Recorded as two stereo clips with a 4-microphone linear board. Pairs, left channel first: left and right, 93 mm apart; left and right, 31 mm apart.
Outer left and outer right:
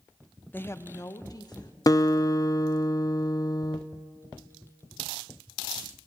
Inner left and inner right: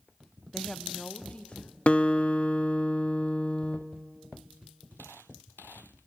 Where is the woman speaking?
20° left (ahead or behind), 0.7 m; by 1.8 s 50° left (ahead or behind), 1.9 m.